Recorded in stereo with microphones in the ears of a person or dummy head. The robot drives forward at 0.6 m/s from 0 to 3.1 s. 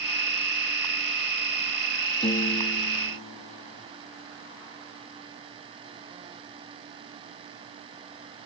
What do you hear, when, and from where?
2.2 s a piano: 25° left (ahead or behind), 2.0 m; by 3.8 s 35° left (ahead or behind), 1.6 m